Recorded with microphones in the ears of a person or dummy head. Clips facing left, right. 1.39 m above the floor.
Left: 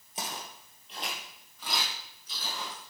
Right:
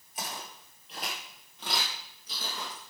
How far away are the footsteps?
About 1.9 m.